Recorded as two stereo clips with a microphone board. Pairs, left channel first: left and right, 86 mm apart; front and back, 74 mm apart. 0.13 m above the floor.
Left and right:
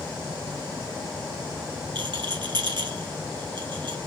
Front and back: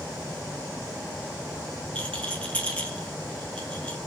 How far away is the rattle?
About 1.3 m.